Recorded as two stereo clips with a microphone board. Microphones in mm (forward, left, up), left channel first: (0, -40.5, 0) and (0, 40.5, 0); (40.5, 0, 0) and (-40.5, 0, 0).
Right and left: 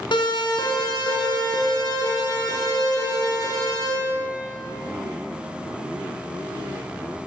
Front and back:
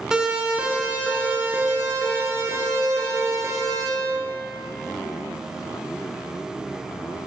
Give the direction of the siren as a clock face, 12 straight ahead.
3 o'clock.